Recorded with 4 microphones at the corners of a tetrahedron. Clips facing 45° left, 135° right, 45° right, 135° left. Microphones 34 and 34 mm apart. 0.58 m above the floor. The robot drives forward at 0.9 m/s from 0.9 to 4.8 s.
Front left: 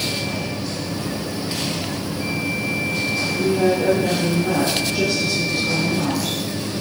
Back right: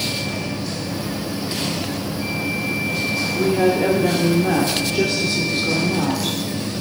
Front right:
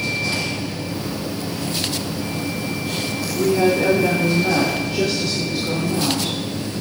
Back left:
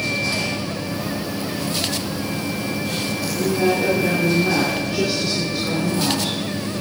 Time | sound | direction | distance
3.4 | a woman speaking | 85° right | 1.2 m